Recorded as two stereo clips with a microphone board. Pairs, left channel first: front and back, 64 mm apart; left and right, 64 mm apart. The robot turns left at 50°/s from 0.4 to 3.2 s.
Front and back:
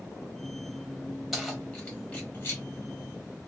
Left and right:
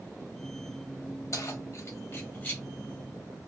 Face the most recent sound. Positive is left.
turn(degrees=0)